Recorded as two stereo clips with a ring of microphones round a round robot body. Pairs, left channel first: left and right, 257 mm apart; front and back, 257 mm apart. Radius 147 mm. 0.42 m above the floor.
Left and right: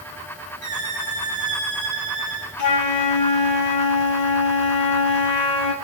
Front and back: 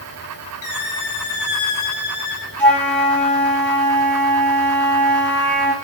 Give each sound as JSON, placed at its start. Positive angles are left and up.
{"t": 0.6, "sound": "a squeak", "azimuth_deg": 15, "distance_m": 3.0}
{"t": 2.6, "sound": "a flute", "azimuth_deg": 85, "distance_m": 2.5}